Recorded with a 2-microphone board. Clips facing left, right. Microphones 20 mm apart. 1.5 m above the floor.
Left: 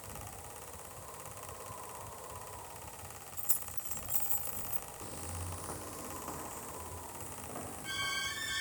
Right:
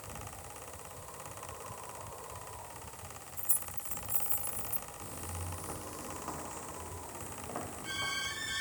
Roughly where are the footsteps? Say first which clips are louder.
Left 1 dB; left.